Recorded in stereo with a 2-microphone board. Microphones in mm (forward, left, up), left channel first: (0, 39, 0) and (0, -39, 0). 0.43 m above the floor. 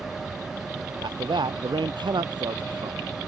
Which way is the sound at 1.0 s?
80° right.